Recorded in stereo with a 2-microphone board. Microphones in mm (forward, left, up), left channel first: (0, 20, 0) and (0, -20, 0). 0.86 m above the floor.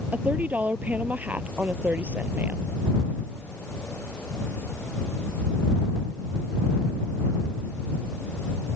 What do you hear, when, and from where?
0.1 s a woman speaking: 45° right (ahead or behind)